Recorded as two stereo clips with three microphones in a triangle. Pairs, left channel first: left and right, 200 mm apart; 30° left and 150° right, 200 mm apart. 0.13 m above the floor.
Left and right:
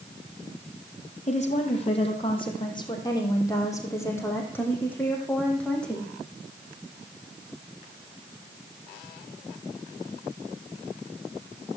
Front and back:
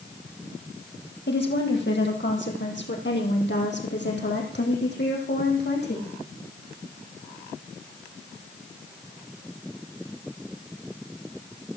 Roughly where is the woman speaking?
Ahead left.